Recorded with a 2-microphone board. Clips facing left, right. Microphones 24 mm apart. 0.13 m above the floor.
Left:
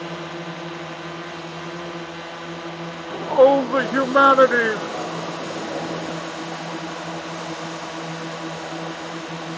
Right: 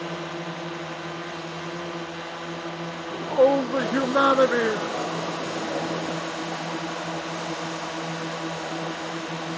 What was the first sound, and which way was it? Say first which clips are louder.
A drone: left 1 dB; 10° left (ahead or behind).